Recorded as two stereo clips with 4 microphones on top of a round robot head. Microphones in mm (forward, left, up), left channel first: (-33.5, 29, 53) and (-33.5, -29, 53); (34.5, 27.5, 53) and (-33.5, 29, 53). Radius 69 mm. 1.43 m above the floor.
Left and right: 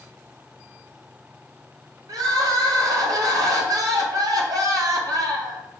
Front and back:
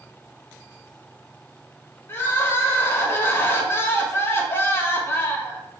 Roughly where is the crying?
Ahead right.